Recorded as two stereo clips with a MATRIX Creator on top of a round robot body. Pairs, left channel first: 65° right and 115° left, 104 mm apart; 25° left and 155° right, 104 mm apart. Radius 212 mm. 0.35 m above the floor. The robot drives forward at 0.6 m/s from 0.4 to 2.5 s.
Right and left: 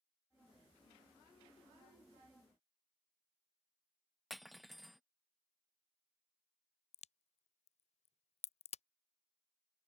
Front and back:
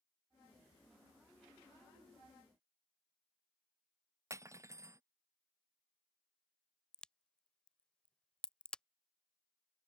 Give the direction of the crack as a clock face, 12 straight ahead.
2 o'clock.